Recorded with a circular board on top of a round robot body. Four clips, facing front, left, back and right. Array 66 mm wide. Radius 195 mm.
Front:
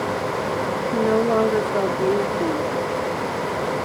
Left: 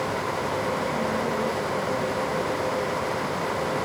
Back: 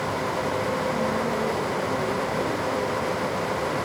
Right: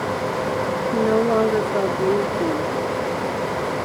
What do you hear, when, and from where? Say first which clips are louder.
0.9 s a woman speaking: right 8 dB, front 7 dB; 50° right